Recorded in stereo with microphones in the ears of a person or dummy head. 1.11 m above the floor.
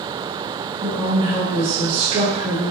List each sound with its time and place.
0.8 s a woman speaking: 35° right (ahead or behind), 0.9 m